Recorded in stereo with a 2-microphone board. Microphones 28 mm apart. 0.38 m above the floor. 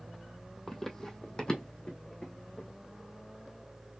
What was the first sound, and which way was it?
Running footsteps, 10° left (ahead or behind).